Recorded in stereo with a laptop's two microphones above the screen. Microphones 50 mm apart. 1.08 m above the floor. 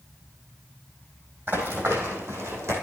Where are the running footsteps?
45° right (ahead or behind), 2.5 m; by 2.7 s 55° right (ahead or behind), 3 m.